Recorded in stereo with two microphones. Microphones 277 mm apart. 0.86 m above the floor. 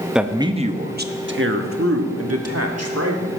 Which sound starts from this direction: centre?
A man speaking, at 0.1 s.